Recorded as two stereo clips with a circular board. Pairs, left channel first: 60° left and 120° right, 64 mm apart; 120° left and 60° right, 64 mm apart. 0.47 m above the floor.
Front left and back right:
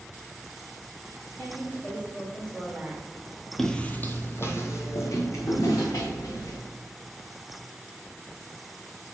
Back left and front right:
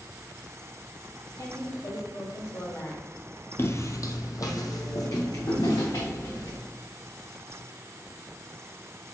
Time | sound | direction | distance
1.4 | a woman speaking | 115° left | 2.5 m
3.6 | footsteps | 145° left | 0.6 m